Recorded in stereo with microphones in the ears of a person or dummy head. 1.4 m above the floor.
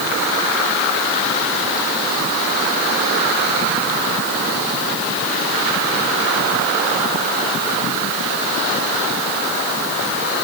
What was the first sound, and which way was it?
Only background noise.